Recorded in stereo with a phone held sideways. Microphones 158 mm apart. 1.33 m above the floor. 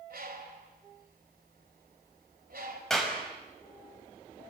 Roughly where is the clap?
Centre.